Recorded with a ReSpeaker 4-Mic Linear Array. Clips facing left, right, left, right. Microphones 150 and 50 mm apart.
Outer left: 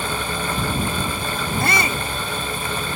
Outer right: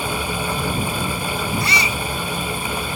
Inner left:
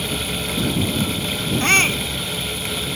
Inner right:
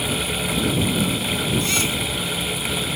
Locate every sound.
1.6 s a shout: 50° left (ahead or behind)